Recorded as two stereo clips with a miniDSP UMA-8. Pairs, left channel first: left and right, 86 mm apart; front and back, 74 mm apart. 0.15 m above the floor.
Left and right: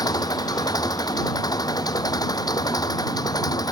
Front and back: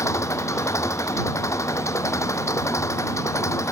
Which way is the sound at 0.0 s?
50° left.